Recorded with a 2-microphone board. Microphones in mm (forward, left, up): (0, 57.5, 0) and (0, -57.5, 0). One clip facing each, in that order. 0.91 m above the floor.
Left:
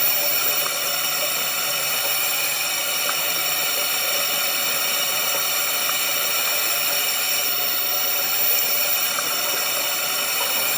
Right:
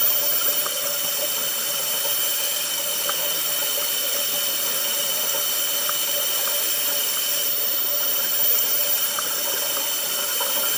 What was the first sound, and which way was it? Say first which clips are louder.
A drone: left 2 dB; 65° left (ahead or behind).